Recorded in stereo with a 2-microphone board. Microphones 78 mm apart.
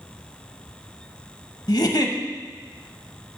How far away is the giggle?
About 0.7 m.